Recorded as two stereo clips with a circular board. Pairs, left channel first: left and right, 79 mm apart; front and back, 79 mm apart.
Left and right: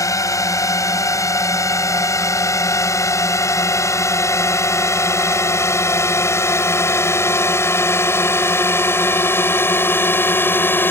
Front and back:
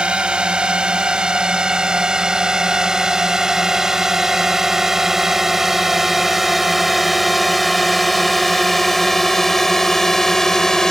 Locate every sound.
0.0 s a drone: 105° left; by 10.9 s 75° left